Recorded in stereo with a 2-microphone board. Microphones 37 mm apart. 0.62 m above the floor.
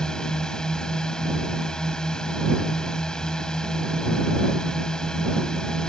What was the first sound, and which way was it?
A drone, 20° left (ahead or behind).